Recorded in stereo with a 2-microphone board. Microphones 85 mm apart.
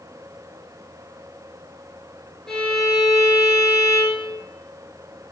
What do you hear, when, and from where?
2.5 s a violin: 5° left (ahead or behind), 0.8 m